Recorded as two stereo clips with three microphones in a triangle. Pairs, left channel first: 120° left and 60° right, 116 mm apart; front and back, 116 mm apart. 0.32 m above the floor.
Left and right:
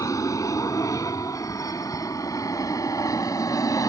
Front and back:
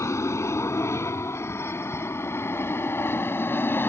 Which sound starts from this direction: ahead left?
An aircraft, at 0.0 s.